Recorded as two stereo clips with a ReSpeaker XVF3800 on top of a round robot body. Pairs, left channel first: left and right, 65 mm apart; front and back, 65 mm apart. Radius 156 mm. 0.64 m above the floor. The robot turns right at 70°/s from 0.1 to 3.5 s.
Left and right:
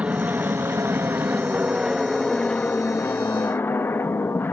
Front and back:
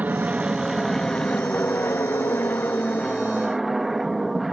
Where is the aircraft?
140° right; by 4.5 s 95° left.